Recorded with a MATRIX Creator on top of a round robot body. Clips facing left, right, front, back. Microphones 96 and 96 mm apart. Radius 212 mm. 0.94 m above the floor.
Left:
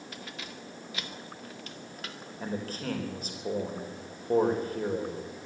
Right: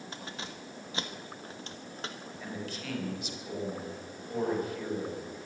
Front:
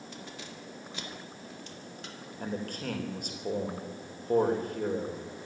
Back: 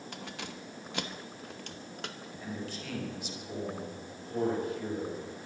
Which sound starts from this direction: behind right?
Keys jangling, at 0.1 s.